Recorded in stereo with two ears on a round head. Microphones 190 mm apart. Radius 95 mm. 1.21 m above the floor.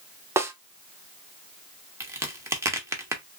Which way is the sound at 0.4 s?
15° right (ahead or behind).